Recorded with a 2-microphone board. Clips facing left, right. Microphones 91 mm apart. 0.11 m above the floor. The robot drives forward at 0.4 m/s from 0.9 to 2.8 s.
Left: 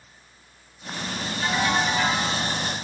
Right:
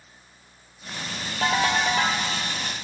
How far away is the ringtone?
About 1.3 m.